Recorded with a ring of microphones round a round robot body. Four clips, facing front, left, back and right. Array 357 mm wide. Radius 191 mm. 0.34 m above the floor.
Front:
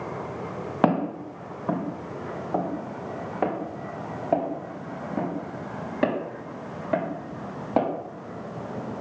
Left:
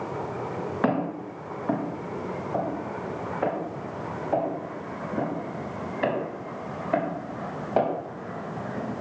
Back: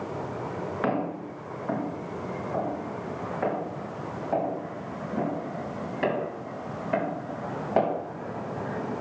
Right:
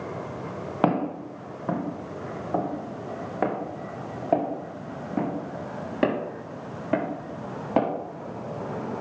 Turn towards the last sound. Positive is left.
turn(degrees=-70)